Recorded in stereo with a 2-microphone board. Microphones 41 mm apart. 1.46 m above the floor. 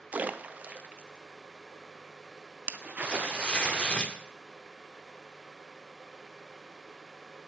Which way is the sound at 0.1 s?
40° right (ahead or behind).